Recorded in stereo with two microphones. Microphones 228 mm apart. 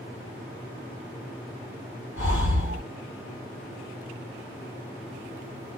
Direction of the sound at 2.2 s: 65° left (ahead or behind).